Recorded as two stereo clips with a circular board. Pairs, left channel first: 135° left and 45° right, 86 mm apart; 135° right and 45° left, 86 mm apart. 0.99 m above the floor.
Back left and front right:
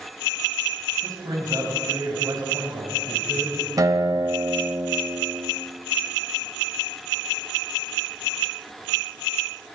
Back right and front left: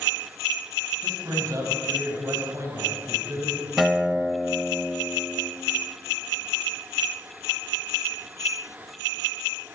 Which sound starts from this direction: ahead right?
A guitar, at 3.8 s.